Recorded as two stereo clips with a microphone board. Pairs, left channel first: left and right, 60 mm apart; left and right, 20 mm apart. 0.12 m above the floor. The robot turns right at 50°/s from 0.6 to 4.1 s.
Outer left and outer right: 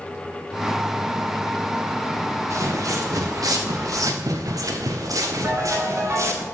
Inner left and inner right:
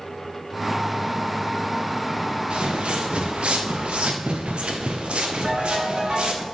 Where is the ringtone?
30° right (ahead or behind), 4 m.